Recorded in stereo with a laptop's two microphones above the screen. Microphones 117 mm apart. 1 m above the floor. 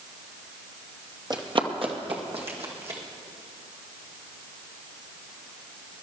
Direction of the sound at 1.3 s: 35° right (ahead or behind).